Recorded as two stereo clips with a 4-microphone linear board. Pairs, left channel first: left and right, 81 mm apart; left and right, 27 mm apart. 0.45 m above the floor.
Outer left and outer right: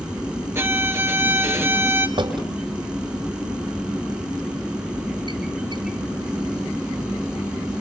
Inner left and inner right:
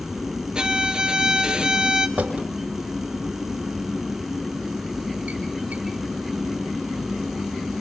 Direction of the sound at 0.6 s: 30° right (ahead or behind).